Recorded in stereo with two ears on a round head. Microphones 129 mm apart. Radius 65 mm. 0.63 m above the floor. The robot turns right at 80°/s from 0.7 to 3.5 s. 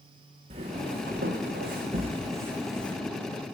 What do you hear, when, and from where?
0.5 s footsteps: 45° right (ahead or behind), 2.5 m; by 3.0 s 15° left (ahead or behind), 1.9 m